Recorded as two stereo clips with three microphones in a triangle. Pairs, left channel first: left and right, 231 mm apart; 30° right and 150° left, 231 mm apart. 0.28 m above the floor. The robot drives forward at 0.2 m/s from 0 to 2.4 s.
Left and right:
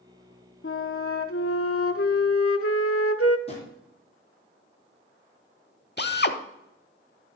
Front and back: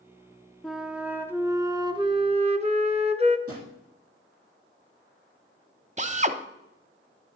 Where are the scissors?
No scissors in this recording.